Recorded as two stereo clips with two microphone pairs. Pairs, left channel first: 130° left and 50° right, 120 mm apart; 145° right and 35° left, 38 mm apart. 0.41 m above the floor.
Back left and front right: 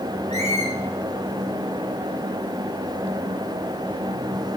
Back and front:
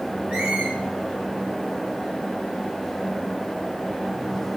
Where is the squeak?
20° right, 6 m.